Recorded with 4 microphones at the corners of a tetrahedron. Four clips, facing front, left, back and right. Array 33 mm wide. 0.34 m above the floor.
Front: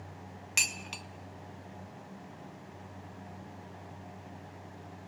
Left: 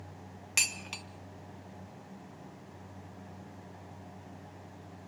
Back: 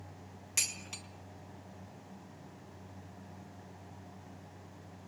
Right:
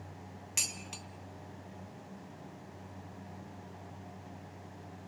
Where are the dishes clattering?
45° left, 1.3 m.